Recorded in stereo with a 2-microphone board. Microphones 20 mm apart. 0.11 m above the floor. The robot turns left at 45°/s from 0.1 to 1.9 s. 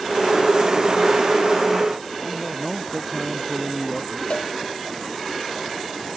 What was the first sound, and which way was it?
A man speaking, 10° right (ahead or behind).